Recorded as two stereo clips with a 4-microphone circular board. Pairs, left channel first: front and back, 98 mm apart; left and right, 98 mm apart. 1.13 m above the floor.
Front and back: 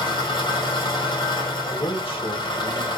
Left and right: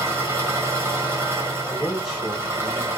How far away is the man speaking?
About 1.9 m.